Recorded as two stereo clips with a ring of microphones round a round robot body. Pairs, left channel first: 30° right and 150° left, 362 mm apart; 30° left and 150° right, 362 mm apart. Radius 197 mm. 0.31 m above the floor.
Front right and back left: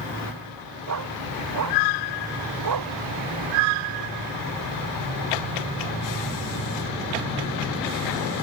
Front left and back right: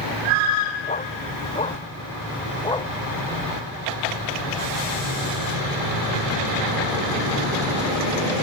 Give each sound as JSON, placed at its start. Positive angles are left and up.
{"t": 0.9, "sound": "a dog barking", "azimuth_deg": 100}